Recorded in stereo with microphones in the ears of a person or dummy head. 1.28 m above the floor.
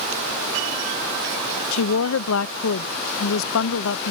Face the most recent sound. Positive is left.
turn(degrees=75)  # may be behind; listen again after turning